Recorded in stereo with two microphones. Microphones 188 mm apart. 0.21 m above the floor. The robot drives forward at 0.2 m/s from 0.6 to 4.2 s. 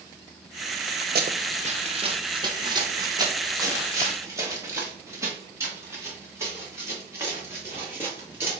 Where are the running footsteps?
55° right (ahead or behind), 0.7 m; by 8.6 s 10° right (ahead or behind), 6 m.